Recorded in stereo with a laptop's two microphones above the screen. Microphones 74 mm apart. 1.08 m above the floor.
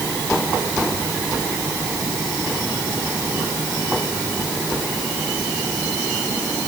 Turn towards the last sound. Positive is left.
No sound to turn to.